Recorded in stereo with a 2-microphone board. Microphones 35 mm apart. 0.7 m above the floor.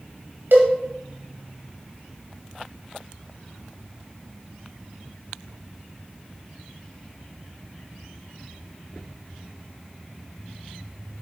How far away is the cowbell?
About 1.9 m.